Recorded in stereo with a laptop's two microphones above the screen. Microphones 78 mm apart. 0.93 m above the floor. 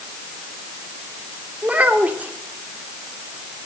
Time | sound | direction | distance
1.6 | a child speaking | 20° right (ahead or behind) | 2 m